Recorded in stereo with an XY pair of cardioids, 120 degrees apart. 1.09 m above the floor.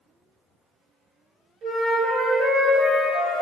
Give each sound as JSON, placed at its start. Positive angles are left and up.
{"t": 1.6, "sound": "a flute", "azimuth_deg": -70, "distance_m": 1.1}